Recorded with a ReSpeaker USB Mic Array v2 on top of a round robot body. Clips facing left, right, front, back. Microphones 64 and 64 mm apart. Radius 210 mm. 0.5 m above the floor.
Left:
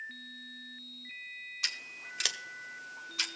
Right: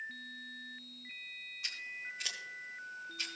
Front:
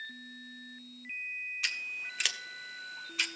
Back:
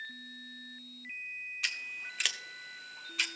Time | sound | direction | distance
1.6 | scissors | 90° left | 0.7 m